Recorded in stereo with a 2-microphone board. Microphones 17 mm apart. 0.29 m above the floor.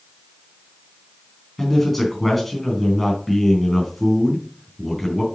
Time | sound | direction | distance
1.6 | a man speaking | 5° left (ahead or behind) | 3 m